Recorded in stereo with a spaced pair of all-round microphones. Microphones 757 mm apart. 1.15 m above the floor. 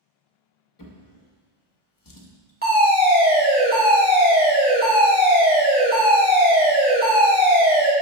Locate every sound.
0.8 s a drawer: 30° left (ahead or behind), 0.5 m
2.6 s a fire alarm: 10° right (ahead or behind), 1.2 m